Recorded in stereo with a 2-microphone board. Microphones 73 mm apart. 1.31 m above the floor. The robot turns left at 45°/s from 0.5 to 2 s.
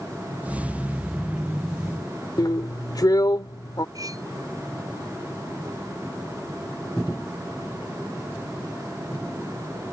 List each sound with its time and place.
2.4 s a drill: 60° left (ahead or behind)
4.0 s cutlery clinking: 55° right (ahead or behind)